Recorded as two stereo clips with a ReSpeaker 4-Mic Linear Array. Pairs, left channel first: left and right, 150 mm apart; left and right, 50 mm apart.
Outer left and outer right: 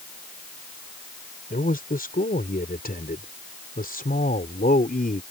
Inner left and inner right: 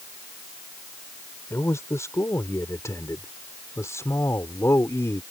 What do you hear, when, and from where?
1.5 s a man speaking: 75° left (ahead or behind); by 5.2 s 70° left (ahead or behind)